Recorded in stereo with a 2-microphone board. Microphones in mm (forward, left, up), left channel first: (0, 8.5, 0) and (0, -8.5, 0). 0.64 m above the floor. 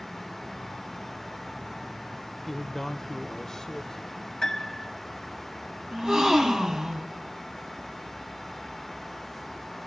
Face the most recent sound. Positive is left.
turn(degrees=-55)  # may be behind; listen again after turning